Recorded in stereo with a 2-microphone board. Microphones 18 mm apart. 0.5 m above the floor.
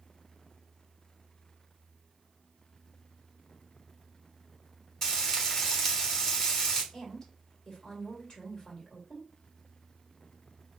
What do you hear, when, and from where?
5.0 s frying: 20° left (ahead or behind), 2.5 m
6.9 s a woman speaking: 35° left (ahead or behind), 1.8 m